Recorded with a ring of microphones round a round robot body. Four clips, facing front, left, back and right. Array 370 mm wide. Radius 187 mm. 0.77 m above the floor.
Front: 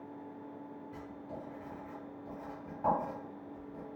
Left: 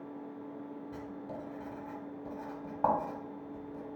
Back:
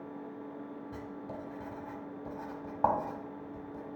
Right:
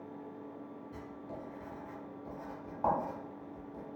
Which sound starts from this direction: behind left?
Writing, at 0.9 s.